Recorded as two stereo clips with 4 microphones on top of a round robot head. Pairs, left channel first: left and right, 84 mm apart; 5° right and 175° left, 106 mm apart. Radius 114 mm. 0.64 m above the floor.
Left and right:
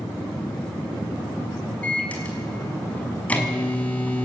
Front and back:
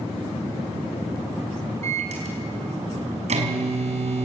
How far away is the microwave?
About 5.5 m.